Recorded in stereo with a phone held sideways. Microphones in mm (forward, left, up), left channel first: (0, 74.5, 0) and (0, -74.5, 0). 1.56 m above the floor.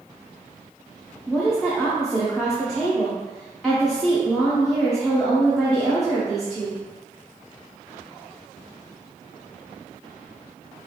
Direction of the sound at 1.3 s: 5° left (ahead or behind).